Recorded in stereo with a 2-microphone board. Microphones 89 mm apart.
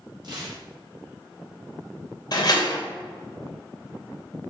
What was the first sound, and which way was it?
Tearing paper, 60° right (ahead or behind).